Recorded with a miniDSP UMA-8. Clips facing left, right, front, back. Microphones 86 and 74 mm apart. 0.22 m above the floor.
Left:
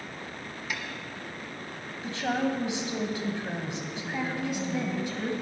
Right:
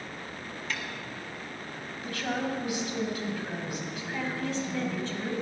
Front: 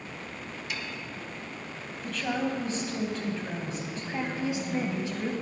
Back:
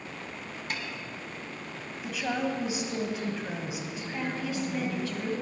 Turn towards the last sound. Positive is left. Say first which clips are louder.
# left 3 dB, front 2 dB
turn(degrees=35)